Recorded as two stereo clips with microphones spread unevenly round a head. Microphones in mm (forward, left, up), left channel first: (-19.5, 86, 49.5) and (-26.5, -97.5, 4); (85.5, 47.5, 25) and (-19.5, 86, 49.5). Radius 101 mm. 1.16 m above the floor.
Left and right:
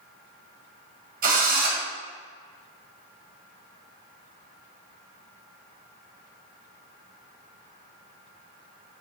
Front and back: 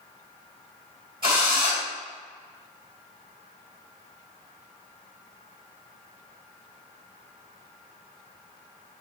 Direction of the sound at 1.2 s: 135° right.